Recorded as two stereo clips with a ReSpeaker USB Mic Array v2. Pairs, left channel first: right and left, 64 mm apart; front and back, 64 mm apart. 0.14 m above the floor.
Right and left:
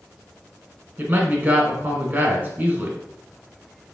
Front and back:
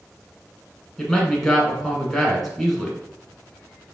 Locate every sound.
1.0 s a man speaking: 85° left, 1.1 m